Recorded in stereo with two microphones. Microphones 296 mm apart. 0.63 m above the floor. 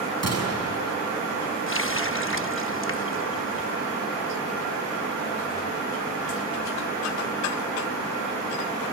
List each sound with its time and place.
0.2 s a gunshot: 55° right (ahead or behind), 6.5 m
1.7 s a running tap: 45° left (ahead or behind), 0.7 m